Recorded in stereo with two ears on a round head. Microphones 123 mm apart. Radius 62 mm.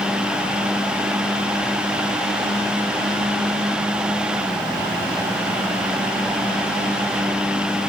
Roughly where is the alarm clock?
No alarm clock in this recording.